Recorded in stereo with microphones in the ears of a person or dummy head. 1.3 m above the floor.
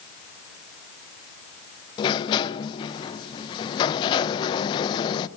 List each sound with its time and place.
2.0 s a sliding door: 30° left (ahead or behind), 0.9 m